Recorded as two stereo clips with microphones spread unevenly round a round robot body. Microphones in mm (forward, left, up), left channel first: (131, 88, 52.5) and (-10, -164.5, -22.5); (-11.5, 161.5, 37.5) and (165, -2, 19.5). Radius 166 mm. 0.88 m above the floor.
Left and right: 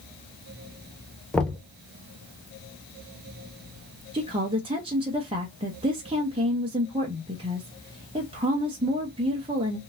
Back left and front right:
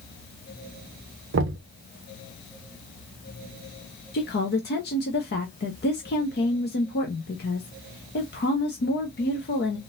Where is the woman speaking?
175° right, 0.6 m.